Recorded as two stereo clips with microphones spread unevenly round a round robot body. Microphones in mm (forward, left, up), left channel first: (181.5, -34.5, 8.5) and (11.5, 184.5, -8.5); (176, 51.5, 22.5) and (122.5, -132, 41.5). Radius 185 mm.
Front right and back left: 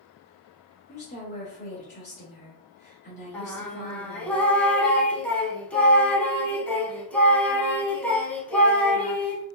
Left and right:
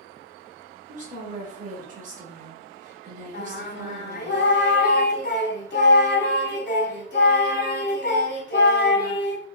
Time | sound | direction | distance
0.9 | a woman speaking | 105° right | 1.1 m
3.3 | singing | 35° left | 0.7 m